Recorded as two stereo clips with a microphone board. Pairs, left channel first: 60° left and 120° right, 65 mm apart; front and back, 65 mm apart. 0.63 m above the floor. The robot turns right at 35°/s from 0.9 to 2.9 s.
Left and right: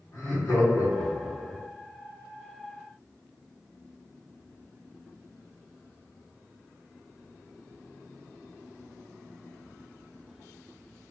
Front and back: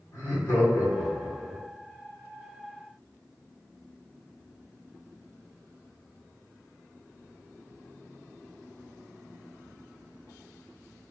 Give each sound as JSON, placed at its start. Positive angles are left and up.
{"t": 0.1, "sound": "laughter", "azimuth_deg": 40, "distance_m": 1.3}